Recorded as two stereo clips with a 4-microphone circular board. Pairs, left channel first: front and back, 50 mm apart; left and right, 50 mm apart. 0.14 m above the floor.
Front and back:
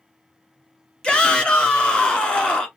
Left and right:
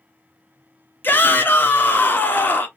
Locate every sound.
1.0 s a shout: 65° left, 1.4 m